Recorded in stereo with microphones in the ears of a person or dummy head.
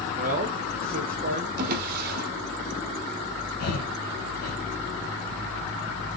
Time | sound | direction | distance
0.1 | a man speaking | 40° right (ahead or behind) | 1.6 m
1.6 | a drawer | 60° right (ahead or behind) | 1.4 m
3.6 | breathing | 60° left (ahead or behind) | 1.9 m